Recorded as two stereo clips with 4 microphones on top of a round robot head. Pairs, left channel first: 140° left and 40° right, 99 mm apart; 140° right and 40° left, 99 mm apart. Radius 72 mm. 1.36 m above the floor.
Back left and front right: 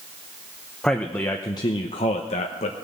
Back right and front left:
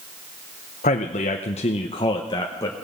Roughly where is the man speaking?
Behind right.